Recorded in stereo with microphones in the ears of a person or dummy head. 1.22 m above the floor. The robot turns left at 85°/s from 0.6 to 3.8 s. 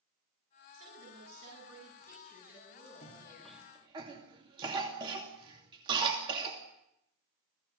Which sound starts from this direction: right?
A woman speaking, at 0.7 s.